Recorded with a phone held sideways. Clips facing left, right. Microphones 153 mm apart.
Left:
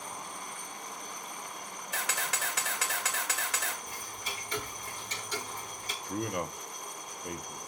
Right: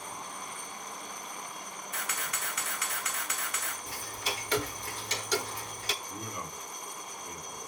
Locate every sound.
1.9 s a camera shutter: 80° left, 1.7 m
3.9 s ticking: 75° right (ahead or behind), 0.7 m
6.0 s a man speaking: 65° left (ahead or behind), 1.1 m